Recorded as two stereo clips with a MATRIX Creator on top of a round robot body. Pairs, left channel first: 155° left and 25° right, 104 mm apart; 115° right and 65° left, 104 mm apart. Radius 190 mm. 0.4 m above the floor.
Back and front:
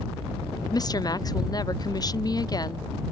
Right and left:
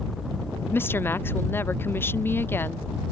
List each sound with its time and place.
0.7 s a woman speaking: 175° right